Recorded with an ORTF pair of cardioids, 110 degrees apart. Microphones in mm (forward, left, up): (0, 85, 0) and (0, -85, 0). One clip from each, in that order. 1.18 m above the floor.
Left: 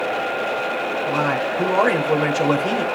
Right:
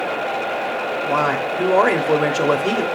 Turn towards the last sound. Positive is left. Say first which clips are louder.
# right 3 dB
turn(degrees=-25)